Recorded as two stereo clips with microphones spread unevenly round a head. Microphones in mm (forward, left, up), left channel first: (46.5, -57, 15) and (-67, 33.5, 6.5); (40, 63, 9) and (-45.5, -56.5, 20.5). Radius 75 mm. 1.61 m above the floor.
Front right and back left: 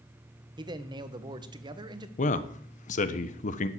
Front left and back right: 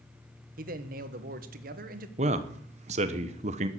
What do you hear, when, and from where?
0.6 s a man speaking: 160° right, 1.2 m
2.2 s a man speaking: 80° right, 1.1 m